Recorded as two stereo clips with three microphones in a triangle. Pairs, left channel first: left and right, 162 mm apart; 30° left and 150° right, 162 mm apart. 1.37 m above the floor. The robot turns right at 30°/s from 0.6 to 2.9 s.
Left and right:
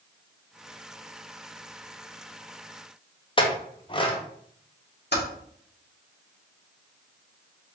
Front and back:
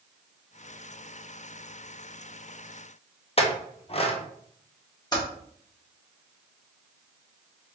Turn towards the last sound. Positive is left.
turn(degrees=95)